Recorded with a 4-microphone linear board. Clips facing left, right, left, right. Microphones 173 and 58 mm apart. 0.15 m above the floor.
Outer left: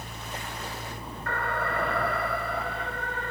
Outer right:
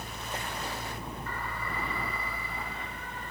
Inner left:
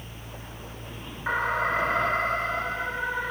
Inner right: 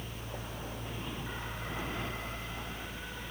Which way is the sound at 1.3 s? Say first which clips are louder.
Outer left 12 dB, inner left 15 dB; 70° left (ahead or behind).